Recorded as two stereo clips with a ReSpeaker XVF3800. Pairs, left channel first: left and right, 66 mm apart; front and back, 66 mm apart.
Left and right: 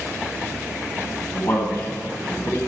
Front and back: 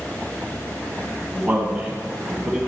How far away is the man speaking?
About 2.5 m.